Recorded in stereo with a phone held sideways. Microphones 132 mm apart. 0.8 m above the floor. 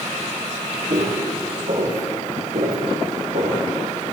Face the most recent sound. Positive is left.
turn(degrees=-80)